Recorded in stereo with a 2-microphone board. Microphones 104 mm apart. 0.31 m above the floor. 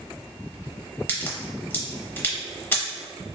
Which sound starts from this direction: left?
A crack, at 1.1 s.